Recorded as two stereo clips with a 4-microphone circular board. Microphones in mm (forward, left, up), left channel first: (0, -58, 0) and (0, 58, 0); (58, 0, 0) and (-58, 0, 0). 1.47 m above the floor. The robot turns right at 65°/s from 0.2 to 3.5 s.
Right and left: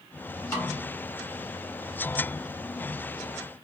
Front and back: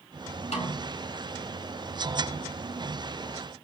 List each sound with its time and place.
0.5 s a snare drum: 20° right, 3 m; by 0.9 s 5° left, 3 m